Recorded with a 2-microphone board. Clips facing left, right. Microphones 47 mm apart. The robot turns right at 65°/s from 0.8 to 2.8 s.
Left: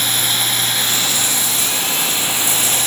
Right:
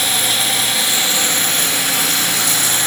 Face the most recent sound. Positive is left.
turn(degrees=-45)